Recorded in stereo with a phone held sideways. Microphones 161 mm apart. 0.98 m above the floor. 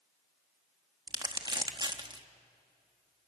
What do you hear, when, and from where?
1.1 s crumpling: 30° right (ahead or behind), 1.2 m